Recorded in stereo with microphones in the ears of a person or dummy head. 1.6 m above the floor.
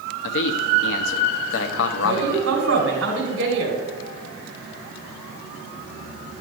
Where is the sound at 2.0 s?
80° right, 3.5 m.